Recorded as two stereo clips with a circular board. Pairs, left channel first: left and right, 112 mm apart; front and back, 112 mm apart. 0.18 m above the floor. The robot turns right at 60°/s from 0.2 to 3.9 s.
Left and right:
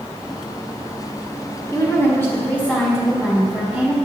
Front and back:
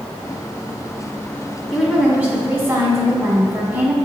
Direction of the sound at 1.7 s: 95° left.